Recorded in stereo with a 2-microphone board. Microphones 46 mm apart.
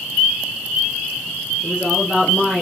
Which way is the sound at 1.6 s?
25° right (ahead or behind).